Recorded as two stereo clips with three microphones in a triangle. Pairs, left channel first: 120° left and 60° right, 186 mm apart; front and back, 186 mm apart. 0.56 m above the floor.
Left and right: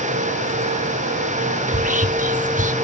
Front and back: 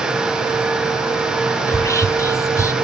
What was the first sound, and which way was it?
Whispering, 70° right.